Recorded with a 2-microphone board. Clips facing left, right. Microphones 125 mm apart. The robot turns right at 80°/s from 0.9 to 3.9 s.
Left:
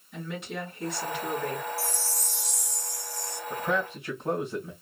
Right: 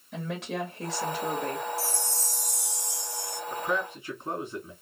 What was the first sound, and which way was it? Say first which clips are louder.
A woman speaking: right 3 dB; 95° right.